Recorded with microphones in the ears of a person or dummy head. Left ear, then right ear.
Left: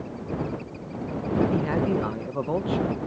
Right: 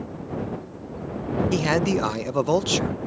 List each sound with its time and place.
1.5 s a man speaking: 80° right